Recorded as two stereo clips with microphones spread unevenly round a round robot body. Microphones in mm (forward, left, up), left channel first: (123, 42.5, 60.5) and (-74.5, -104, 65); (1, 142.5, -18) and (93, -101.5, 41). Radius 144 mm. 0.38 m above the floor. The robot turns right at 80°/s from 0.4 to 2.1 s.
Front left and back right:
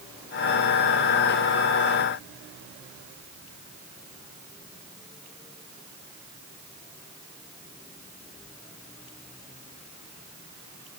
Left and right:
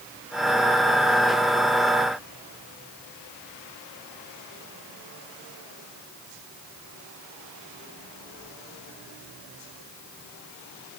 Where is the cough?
No cough in this recording.